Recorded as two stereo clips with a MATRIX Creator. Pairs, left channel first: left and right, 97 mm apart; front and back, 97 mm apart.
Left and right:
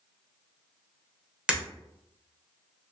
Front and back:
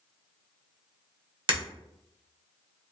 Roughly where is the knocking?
I don't hear knocking.